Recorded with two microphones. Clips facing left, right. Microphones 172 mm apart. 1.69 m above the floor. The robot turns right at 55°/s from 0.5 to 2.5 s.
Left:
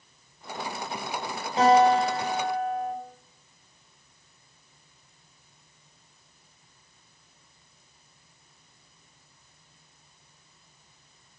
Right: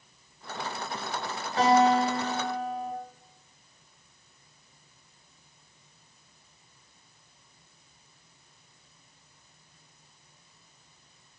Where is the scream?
I don't hear a scream.